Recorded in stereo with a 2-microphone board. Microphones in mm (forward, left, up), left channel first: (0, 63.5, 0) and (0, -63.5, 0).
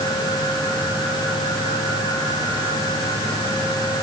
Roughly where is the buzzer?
I don't hear a buzzer.